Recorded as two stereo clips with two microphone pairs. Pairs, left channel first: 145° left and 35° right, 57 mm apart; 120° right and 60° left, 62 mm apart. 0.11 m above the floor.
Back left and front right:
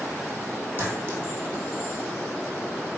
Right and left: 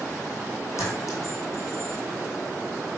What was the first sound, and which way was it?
A clink, 90° right.